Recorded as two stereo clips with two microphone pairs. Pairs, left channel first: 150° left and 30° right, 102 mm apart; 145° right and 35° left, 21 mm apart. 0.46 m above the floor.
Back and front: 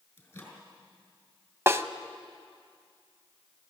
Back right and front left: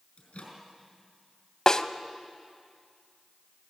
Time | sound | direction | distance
0.2 | a microwave | 140° right | 4.5 m
1.7 | a snare drum | 90° right | 0.7 m